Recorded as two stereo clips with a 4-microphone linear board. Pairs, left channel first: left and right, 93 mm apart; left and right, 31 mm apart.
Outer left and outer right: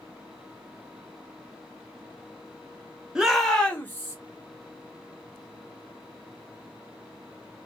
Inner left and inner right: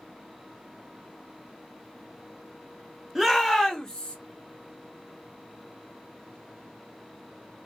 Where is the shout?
5° right (ahead or behind), 1.1 m; by 4.2 s 30° left (ahead or behind), 1.1 m.